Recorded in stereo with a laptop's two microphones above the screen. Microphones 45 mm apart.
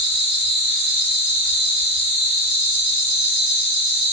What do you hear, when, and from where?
0.0 s an insect: centre (ahead or behind), 1.4 m